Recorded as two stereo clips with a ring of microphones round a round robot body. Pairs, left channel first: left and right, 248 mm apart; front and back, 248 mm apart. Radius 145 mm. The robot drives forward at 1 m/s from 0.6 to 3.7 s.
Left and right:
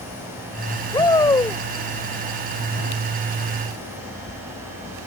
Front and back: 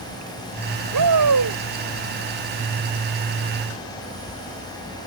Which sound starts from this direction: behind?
A shout, at 0.9 s.